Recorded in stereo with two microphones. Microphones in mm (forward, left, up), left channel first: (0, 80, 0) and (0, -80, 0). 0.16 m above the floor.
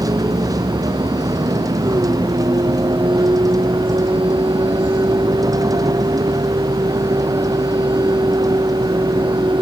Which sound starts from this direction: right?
A vehicle, at 0.0 s.